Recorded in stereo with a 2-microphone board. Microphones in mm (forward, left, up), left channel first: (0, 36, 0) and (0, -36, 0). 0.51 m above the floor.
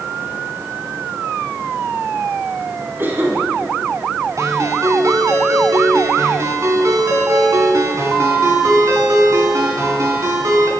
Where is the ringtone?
45° right (ahead or behind), 4 m.